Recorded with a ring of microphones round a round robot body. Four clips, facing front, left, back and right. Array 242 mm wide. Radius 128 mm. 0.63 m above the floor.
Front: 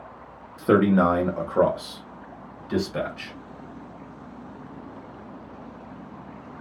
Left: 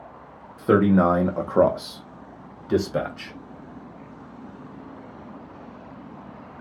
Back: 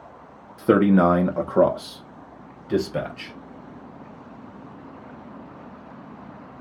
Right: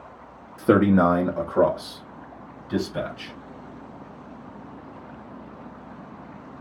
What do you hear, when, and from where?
0.6 s a man speaking: 120° right, 1.1 m; by 3.3 s 110° left, 2.5 m